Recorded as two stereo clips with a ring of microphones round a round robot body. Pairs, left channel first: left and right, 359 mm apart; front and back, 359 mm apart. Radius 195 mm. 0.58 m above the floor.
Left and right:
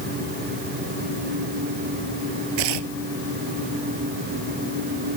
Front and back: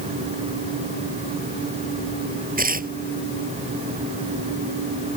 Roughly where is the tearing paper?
Behind right.